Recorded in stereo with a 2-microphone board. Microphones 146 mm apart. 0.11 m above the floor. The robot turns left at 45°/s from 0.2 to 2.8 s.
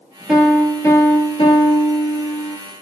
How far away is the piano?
About 0.7 m.